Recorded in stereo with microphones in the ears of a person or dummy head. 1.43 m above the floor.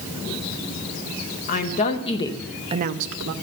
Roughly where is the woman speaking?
Left.